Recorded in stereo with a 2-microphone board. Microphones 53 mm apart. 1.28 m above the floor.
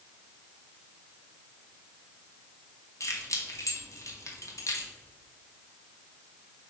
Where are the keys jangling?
85° left, 1.3 m.